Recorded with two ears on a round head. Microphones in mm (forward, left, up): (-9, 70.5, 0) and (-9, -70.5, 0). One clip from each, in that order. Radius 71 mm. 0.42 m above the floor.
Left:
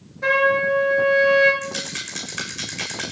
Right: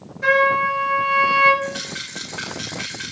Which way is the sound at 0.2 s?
Centre (ahead or behind).